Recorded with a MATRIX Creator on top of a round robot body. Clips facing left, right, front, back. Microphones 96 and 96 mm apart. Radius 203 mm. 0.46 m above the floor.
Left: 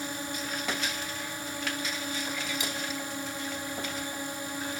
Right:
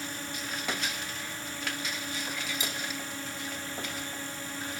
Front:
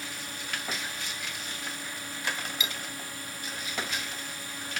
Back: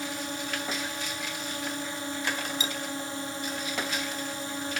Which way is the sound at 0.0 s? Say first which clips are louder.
Left 3 dB, back 7 dB; 145° left.